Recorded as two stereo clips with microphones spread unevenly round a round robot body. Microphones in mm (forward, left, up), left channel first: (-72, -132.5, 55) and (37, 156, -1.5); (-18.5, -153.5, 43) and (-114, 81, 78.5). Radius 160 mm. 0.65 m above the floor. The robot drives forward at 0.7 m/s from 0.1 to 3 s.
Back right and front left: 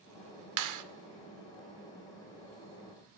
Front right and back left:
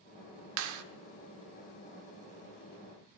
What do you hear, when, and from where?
0.6 s a clap: 85° left, 1.7 m; by 0.8 s 90° left, 1.7 m